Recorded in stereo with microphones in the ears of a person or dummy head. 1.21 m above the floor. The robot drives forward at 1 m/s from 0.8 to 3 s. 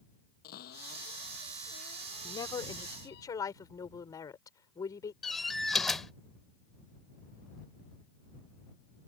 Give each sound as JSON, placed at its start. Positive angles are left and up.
{"t": 0.4, "sound": "a cupboard door", "side_deg": 60}
{"t": 2.2, "sound": "a woman speaking", "side_deg": 30}
{"t": 5.2, "sound": "a door slam", "side_deg": 0}